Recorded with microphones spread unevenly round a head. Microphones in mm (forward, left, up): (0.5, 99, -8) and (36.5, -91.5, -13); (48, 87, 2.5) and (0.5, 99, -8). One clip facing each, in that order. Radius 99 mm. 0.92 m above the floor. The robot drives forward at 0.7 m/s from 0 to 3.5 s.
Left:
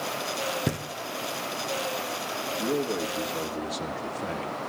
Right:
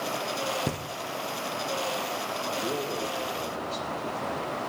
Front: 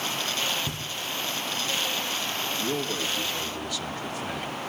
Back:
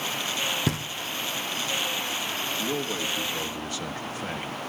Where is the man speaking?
100° left, 1.4 m; by 4.6 s 125° left, 1.6 m.